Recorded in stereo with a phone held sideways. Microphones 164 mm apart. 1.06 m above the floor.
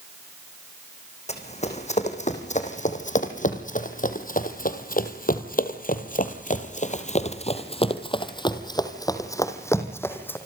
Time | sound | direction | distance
1.3 | running footsteps | 40° left (ahead or behind) | 4 m